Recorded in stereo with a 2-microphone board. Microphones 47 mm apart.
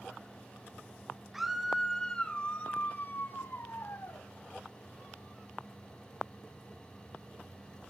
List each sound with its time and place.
1.3 s a scream: 5° right (ahead or behind), 1.6 m; by 4.2 s 60° left (ahead or behind), 2.5 m